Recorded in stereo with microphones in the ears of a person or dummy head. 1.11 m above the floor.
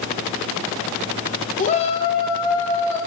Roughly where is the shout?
Left.